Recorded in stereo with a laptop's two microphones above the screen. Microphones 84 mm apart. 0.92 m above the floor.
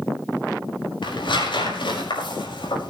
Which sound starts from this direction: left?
Tearing paper, at 1.0 s.